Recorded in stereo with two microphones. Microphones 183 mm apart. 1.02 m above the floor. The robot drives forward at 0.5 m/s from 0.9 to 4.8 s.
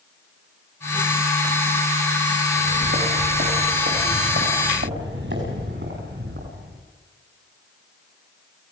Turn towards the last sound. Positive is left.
turn(degrees=-75)  # may be behind; listen again after turning